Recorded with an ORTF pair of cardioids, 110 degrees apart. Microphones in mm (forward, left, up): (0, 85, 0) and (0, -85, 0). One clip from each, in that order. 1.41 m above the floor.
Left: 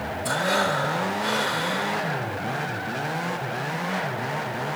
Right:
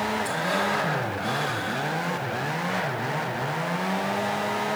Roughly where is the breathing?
Ahead left.